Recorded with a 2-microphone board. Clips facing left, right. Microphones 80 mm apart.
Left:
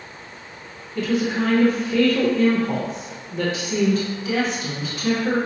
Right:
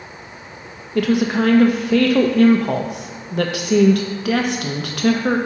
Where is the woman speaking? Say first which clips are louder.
Right 5 dB; 65° right (ahead or behind), 0.6 m.